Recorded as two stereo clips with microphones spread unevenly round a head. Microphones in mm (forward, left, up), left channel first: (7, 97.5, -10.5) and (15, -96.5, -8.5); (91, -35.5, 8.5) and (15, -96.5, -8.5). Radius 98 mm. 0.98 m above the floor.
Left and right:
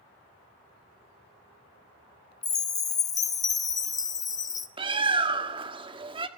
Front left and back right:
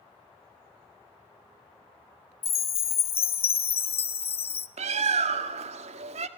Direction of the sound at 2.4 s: 20° left.